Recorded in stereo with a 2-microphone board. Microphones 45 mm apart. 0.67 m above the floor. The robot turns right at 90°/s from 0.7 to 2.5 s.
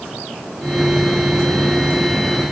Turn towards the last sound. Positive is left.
No sound to turn to.